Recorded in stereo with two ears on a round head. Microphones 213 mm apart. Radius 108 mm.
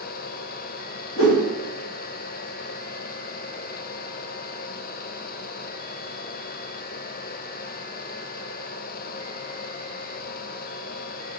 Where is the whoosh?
55° left (ahead or behind), 1.0 m.